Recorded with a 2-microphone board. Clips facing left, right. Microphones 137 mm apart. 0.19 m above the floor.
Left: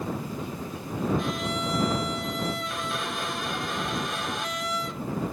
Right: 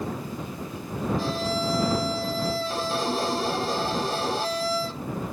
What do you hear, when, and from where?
1.2 s a violin: 35° right (ahead or behind)